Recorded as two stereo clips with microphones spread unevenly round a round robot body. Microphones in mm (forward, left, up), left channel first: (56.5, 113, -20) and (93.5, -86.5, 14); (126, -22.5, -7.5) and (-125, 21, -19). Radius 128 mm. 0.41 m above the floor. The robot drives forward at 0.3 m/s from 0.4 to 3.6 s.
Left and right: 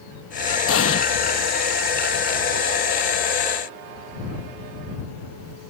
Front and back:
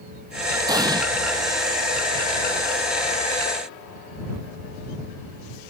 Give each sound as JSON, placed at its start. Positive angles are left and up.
{"t": 0.7, "sound": "an explosion", "azimuth_deg": 95}